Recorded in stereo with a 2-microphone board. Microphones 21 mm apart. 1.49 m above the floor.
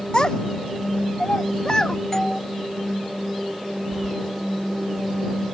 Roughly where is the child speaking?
Left.